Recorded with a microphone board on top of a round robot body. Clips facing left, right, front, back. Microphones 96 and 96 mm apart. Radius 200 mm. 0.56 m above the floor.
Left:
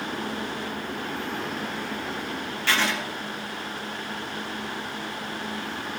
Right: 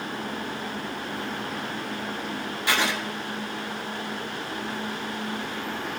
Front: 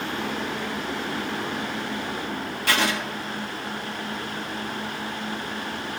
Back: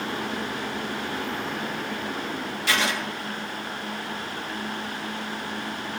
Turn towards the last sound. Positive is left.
turn(degrees=-20)